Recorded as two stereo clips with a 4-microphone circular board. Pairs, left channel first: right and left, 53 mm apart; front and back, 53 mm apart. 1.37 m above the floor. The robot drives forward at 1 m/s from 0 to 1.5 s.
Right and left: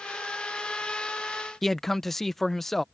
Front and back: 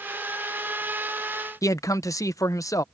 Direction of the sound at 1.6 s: 5° right.